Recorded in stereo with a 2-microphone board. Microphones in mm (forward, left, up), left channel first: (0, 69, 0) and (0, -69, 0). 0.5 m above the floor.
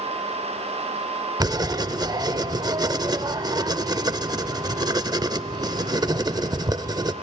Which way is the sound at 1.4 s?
30° right (ahead or behind).